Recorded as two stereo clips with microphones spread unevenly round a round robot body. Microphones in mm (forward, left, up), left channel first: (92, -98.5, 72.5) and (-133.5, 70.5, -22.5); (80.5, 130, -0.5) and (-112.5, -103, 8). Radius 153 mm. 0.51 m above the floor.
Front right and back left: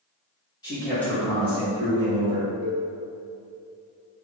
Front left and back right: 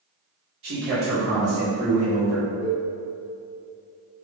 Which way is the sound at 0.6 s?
130° right.